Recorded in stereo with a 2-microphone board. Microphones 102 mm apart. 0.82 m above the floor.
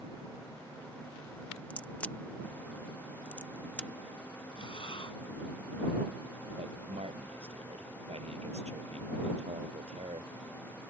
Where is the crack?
15° left (ahead or behind).